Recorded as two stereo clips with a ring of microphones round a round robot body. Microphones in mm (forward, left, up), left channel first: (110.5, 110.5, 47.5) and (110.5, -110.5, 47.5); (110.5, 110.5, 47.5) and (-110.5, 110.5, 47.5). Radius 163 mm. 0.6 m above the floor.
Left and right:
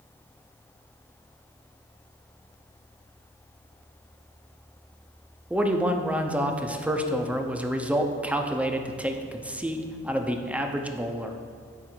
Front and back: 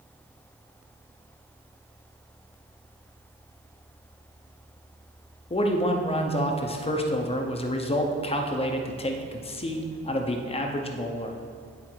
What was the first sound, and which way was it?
A man speaking, 15° right.